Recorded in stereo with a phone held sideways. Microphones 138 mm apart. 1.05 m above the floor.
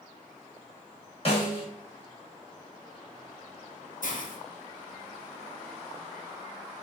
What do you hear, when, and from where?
1.2 s a snare drum: 40° left (ahead or behind), 1.5 m
4.0 s a hiss: 70° left (ahead or behind), 0.5 m